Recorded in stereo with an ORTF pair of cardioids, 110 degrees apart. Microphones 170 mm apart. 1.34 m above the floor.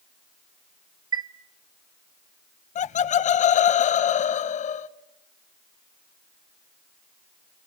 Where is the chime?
25° right, 1.2 m.